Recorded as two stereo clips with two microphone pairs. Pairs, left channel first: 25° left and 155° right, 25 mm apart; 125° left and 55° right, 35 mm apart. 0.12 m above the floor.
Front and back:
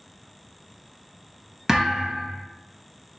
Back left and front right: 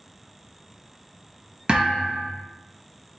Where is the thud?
95° right, 1.0 m.